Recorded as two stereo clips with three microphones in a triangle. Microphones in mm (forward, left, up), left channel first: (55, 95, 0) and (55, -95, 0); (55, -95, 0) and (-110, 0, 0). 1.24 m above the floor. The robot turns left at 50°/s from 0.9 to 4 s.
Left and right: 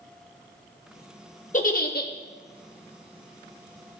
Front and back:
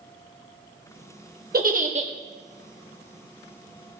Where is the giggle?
125° left, 0.9 m; by 2.1 s 100° left, 0.9 m.